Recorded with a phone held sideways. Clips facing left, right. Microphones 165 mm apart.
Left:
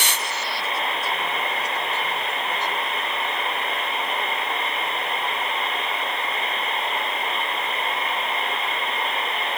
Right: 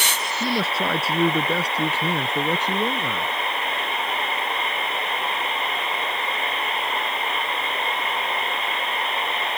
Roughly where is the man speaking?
Right.